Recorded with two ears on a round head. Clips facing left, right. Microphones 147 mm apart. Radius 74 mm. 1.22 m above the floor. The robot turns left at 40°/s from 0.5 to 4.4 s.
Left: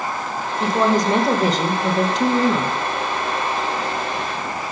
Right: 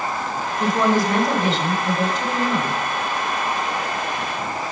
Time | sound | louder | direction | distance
0.6 | a woman speaking | left 1 dB | straight behind | 1.0 m